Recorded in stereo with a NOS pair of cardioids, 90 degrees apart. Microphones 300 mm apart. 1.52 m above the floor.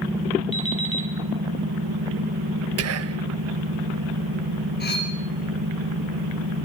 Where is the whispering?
55° right, 1.4 m.